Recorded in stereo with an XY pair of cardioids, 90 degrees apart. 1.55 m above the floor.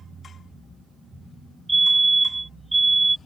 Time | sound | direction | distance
1.7 | a fire alarm | 25° right | ?